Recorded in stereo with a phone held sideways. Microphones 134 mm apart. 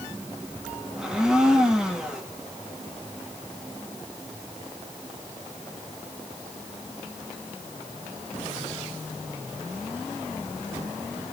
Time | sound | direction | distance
1.0 | a blender | 5° right (ahead or behind) | 1.5 m